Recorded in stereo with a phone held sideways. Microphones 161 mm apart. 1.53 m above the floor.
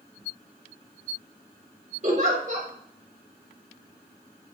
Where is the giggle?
50° right (ahead or behind), 1.8 m.